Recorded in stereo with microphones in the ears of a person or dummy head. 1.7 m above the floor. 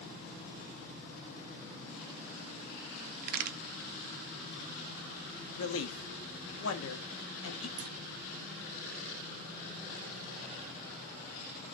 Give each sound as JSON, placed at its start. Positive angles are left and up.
{"t": 3.2, "sound": "a crack", "side_deg": -50, "distance_m": 0.6}
{"t": 5.6, "sound": "a man speaking", "side_deg": 85, "distance_m": 0.8}
{"t": 7.8, "sound": "a clunk", "side_deg": -65, "distance_m": 0.8}